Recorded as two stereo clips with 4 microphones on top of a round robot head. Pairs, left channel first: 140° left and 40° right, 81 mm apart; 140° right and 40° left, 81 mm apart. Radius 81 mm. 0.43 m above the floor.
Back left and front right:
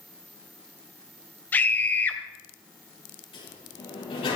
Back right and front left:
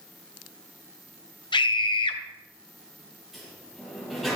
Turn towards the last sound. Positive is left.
turn(degrees=130)